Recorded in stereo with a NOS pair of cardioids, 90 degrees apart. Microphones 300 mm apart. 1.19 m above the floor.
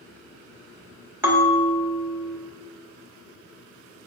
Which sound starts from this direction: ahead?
A bell, at 1.2 s.